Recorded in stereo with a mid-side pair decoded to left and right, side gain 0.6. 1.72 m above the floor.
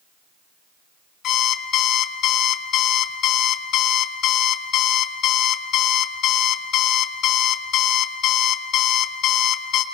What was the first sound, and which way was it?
An alarm clock, 65° left.